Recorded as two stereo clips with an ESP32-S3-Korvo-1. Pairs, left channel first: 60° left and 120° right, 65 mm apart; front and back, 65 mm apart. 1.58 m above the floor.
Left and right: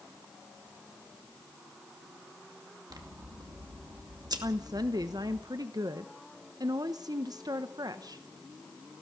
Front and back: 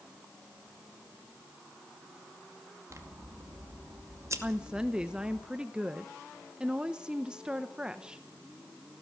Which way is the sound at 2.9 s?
135° right.